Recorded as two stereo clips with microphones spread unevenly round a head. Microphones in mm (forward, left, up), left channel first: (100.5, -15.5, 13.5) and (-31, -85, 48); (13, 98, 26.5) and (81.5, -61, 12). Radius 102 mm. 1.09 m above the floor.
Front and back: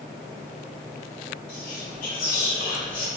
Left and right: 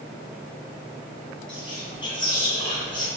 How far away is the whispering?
About 1.6 m.